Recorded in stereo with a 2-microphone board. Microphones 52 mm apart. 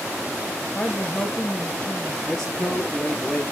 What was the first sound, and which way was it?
A woman speaking, 20° left (ahead or behind).